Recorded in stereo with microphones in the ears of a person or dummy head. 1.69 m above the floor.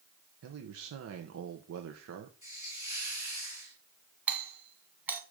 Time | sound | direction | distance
0.4 | a man speaking | 80° right | 1.4 m
2.4 | a hiss | 20° right (ahead or behind) | 2.5 m
4.3 | a doorbell | 10° right (ahead or behind) | 2 m